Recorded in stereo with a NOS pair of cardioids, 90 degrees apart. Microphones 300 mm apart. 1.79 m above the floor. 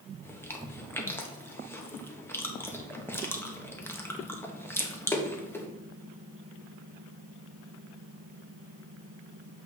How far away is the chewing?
About 1.2 m.